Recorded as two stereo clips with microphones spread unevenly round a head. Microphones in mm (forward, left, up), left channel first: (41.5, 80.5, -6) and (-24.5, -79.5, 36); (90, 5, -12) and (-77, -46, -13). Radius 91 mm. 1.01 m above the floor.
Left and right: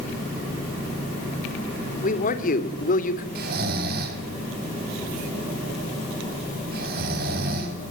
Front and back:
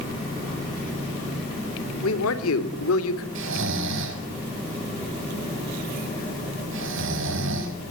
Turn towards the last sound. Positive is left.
turn(degrees=-150)